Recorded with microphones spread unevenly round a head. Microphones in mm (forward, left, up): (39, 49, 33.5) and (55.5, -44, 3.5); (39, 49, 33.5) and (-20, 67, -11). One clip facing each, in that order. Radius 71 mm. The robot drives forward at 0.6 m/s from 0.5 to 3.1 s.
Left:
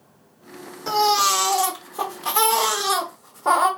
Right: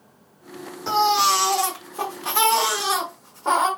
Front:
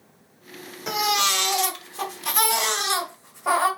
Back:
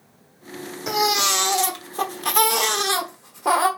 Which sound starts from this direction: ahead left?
A baby crying, at 0.9 s.